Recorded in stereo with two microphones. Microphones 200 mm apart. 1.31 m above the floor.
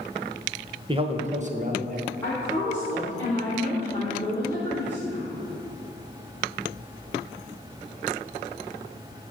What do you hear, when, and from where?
0.9 s a man speaking: 25° right (ahead or behind), 0.9 m; by 2.1 s 45° right (ahead or behind), 1.5 m
2.2 s a woman speaking: 10° left (ahead or behind), 3.5 m